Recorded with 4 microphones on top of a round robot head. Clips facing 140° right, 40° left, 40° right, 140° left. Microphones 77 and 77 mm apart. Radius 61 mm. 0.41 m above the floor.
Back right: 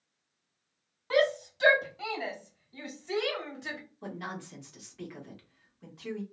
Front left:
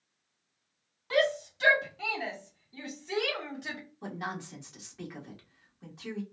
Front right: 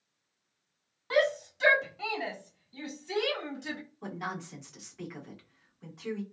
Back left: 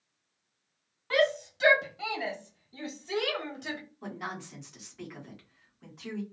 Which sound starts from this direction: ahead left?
A woman speaking, at 4.0 s.